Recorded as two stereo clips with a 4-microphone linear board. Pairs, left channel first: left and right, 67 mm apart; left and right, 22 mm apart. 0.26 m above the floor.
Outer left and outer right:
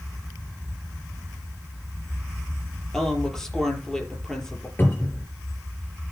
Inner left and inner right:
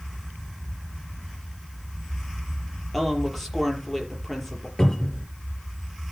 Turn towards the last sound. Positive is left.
turn(degrees=30)  # may be behind; listen again after turning